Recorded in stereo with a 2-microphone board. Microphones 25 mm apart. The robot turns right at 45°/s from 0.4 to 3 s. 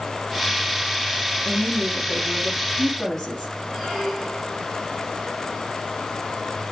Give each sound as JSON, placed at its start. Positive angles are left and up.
{"t": 1.3, "sound": "a woman speaking", "azimuth_deg": -60, "distance_m": 3.0}
{"t": 3.7, "sound": "a squeak", "side_deg": -5, "distance_m": 5.0}